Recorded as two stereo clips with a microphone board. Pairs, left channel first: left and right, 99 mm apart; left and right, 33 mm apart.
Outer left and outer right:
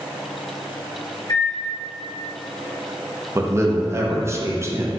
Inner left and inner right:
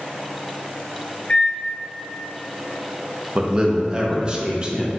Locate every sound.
1.3 s a microwave: 40° left (ahead or behind), 1.9 m
3.4 s a man speaking: 25° right (ahead or behind), 0.6 m